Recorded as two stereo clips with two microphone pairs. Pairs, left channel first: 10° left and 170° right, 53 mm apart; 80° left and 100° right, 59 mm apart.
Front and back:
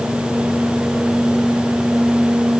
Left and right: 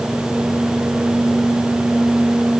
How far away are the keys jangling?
No keys jangling in this recording.